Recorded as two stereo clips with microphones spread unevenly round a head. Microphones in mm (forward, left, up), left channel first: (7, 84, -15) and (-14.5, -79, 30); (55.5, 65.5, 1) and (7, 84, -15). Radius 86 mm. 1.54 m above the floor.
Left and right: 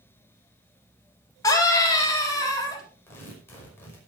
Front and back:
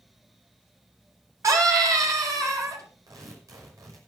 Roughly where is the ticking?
No ticking in this recording.